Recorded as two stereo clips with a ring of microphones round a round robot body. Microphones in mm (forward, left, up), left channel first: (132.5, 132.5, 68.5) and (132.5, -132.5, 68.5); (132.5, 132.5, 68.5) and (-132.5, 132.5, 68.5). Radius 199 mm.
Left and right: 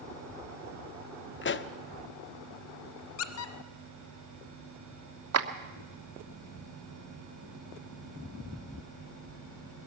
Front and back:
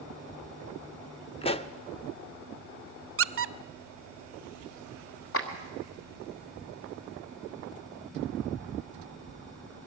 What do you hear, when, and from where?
1.4 s a pop: 65° left, 0.8 m
3.2 s a squeak: 130° left, 0.6 m
5.3 s a clap: 55° right, 1.4 m